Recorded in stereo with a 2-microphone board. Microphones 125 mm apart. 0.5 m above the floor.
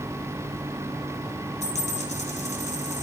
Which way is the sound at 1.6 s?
70° left (ahead or behind).